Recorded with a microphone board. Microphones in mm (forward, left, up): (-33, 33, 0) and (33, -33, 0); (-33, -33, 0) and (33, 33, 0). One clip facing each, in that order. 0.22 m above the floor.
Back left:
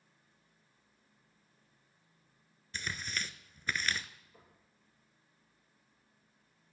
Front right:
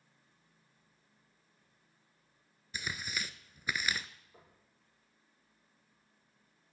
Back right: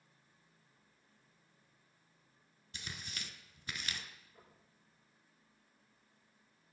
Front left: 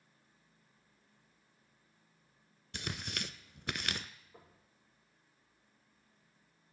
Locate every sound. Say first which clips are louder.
2.7 s tearing paper: even, front left 7 dB; 35° left, 0.5 m
4.3 s knocking: front right 1 dB, front left 3 dB; 20° left, 6 m